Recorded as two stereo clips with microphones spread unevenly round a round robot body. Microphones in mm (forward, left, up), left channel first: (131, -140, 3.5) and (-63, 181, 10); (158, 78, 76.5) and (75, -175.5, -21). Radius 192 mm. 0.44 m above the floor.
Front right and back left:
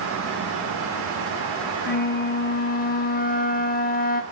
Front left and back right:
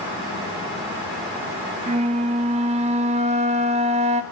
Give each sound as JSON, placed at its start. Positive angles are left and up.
{"t": 1.9, "sound": "a flute", "azimuth_deg": -115, "distance_m": 0.7}